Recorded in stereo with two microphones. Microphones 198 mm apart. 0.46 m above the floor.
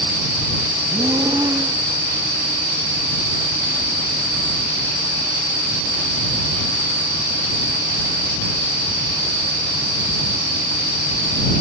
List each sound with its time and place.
0.9 s breathing: 15° right (ahead or behind)